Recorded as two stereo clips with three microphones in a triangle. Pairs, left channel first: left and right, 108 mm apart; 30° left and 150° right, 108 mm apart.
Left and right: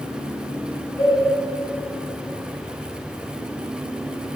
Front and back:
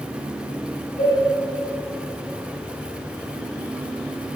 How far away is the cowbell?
About 3 m.